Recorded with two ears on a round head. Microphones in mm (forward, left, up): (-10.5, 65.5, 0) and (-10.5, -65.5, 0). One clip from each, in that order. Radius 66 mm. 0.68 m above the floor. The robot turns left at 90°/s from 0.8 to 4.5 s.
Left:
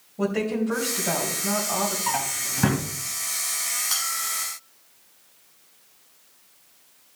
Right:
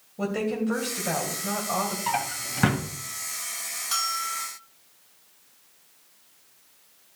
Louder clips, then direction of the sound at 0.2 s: Left 2 dB; 10° right.